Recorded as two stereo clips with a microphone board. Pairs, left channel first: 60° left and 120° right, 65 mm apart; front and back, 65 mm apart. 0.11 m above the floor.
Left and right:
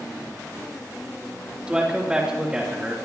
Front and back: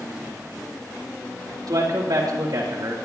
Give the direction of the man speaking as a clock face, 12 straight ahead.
6 o'clock.